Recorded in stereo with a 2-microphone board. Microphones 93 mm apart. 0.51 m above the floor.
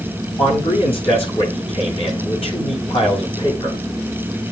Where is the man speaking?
80° left, 8.5 m.